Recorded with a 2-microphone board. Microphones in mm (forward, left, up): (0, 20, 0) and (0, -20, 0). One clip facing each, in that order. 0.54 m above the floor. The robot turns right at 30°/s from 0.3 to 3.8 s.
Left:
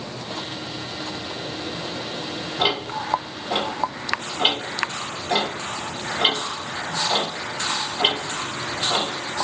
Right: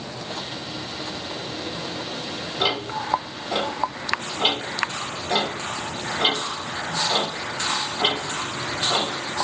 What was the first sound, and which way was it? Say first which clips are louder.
Ticking: left 1 dB; 50° left (ahead or behind).